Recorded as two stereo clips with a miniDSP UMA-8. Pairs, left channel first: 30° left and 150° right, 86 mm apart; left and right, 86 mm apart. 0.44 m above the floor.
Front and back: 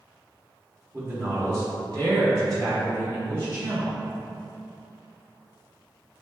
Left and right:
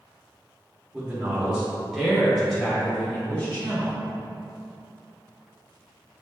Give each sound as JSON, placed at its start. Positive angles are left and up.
{"t": 0.9, "sound": "a man speaking", "azimuth_deg": -135, "distance_m": 1.3}